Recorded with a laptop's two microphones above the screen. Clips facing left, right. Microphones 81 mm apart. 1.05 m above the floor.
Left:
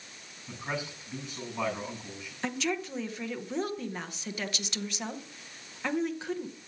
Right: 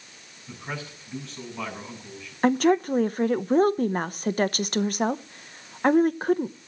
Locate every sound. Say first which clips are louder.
0.5 s a man speaking: even; 10° left (ahead or behind), 7 m
2.4 s a woman speaking: right 12 dB; 50° right (ahead or behind), 0.8 m